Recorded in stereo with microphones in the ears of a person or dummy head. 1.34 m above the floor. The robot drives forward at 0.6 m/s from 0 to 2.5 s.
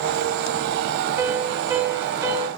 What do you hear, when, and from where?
1.2 s a piano: 10° right (ahead or behind), 2.5 m; by 2.5 s 15° right (ahead or behind), 1.6 m